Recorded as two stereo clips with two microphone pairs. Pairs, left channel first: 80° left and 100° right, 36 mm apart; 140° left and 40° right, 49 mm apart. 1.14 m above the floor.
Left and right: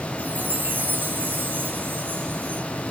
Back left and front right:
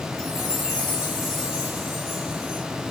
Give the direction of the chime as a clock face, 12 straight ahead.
4 o'clock.